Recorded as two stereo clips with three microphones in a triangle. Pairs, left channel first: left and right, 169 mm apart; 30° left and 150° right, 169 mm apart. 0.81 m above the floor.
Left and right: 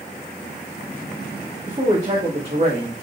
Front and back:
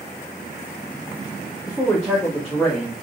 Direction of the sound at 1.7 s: 50° right.